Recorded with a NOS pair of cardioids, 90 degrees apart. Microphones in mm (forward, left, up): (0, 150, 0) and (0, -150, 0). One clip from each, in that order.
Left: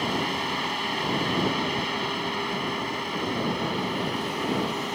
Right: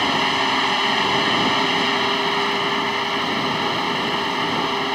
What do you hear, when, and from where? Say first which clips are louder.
0.0 s a fan: right 8 dB; 60° right